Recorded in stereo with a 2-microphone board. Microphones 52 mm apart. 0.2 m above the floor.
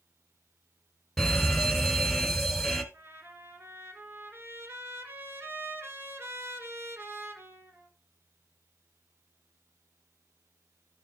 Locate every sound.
1.2 s an alarm: centre (ahead or behind), 1.3 m
2.9 s a trumpet: 50° right (ahead or behind), 1.7 m